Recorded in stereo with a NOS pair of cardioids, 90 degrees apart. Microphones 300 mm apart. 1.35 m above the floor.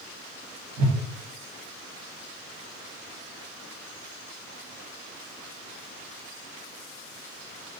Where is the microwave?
I don't hear a microwave.